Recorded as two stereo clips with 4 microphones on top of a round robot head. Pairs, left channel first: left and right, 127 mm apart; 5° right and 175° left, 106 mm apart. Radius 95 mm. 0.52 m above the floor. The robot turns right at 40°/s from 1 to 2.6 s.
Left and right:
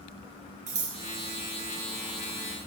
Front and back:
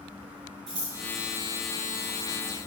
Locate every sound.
0.7 s scissors: 120° right, 3.5 m